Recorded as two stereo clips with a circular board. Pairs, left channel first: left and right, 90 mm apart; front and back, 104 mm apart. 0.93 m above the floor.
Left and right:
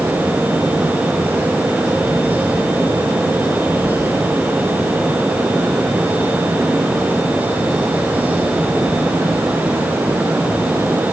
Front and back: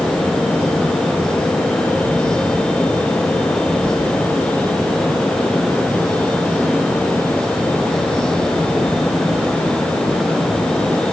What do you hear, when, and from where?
Only background noise.